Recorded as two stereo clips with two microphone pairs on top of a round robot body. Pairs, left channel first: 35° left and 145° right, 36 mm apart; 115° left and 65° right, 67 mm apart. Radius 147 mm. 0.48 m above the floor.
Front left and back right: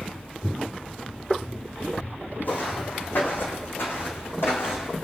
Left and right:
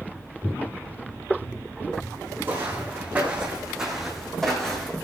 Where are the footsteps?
5° right, 2 m; by 5.0 s 40° left, 2.5 m.